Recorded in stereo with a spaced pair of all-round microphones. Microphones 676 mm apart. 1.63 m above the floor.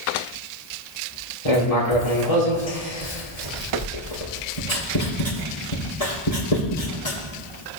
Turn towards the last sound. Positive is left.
turn(degrees=60)  # may be behind; listen again after turning